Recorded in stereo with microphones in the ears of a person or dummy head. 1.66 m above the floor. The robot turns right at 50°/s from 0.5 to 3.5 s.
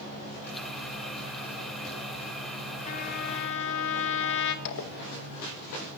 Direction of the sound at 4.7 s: 70° left (ahead or behind).